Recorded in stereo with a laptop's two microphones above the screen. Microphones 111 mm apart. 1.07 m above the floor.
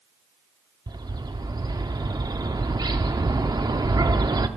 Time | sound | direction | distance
0.9 | a bird | 35° right (ahead or behind) | 0.7 m